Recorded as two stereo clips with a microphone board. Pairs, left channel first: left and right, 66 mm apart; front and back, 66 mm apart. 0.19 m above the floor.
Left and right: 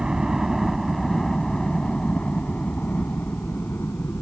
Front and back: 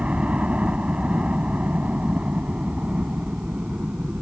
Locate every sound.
0.0 s a helicopter: 150° right; by 4.2 s 115° left